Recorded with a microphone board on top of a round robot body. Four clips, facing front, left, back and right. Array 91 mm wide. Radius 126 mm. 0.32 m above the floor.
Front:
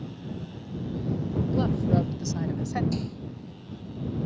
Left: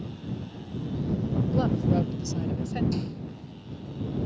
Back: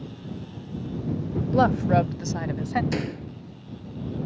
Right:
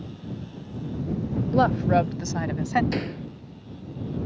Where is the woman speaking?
140° right; by 2.8 s 105° right.